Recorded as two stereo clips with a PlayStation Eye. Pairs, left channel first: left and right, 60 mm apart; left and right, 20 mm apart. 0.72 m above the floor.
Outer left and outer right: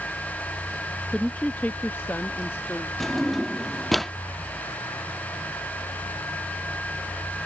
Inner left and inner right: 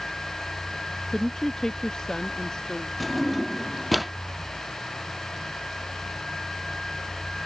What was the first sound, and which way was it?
A woman speaking, 15° left (ahead or behind).